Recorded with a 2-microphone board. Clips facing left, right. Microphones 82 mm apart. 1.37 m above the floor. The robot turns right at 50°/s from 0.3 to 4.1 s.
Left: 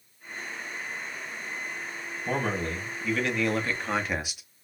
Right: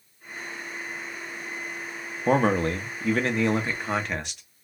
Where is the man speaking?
85° right, 0.9 m; by 4.4 s 5° left, 0.9 m.